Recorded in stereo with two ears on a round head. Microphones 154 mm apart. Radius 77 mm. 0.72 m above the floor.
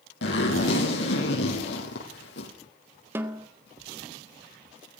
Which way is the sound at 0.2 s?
75° left (ahead or behind).